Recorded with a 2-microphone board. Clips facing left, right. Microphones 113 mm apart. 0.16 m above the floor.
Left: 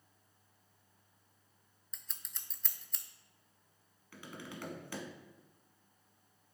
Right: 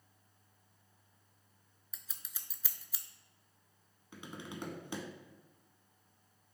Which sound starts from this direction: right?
Tapping, at 4.1 s.